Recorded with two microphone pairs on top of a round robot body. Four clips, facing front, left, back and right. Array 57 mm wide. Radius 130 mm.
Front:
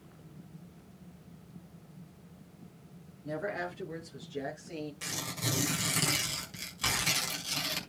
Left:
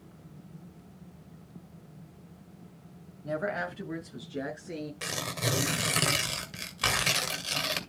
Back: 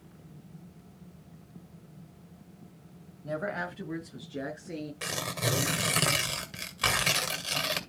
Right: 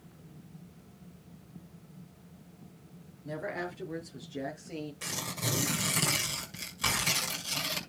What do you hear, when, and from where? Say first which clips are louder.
3.2 s a woman speaking: left 5 dB, back 2 dB; 135° left, 4.5 m
5.0 s tearing paper: left 6 dB, back 5 dB; 150° left, 2.5 m